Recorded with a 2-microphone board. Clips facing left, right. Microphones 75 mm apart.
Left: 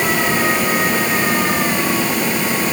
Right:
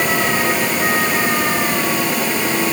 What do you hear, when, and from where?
Only background noise.